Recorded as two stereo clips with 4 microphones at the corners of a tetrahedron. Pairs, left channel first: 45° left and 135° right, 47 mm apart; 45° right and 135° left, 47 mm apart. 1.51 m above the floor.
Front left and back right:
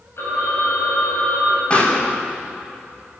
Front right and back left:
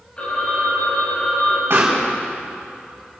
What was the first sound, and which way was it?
A phone ringing, 20° left.